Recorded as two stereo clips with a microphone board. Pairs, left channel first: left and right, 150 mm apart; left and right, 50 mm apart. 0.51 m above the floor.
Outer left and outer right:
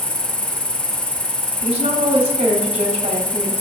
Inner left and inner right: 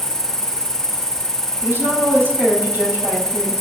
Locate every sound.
0.0 s an insect: 65° left (ahead or behind), 0.7 m
1.6 s a woman speaking: 55° right (ahead or behind), 3 m